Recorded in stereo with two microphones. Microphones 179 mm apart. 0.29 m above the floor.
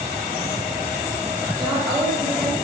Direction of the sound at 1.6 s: 20° right (ahead or behind).